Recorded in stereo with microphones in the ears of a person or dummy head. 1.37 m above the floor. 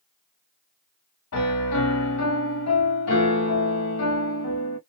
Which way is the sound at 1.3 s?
85° left.